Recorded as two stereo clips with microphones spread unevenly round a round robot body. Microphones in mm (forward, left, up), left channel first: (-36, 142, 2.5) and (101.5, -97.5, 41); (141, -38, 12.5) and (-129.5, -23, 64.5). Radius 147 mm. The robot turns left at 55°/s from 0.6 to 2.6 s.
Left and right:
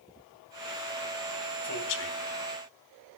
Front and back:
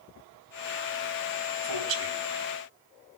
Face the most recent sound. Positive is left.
turn(degrees=130)